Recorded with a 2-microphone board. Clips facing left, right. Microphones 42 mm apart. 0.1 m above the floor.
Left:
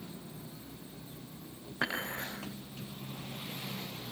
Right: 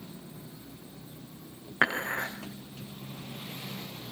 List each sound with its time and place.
1.8 s dishes clattering: 45° right (ahead or behind), 5.5 m